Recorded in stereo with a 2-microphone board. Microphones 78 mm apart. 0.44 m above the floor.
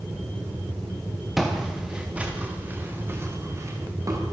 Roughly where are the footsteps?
Centre.